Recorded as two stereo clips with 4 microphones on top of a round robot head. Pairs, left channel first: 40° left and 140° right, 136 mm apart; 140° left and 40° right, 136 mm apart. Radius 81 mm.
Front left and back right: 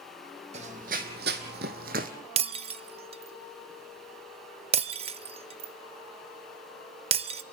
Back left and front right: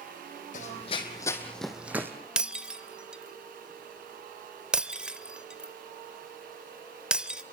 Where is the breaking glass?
120° right, 0.6 m.